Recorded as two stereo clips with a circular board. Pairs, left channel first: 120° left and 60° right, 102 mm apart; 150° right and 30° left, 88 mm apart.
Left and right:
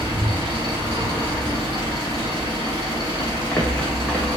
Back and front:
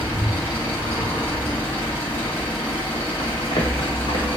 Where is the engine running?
85° right, 1.6 m.